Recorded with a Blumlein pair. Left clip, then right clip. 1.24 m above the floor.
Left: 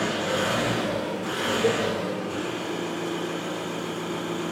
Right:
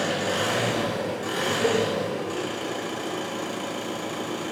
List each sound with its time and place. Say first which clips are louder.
0.0 s an engine running: even; 45° right, 2.0 m
1.6 s a cowbell: right 1 dB; 10° left, 0.6 m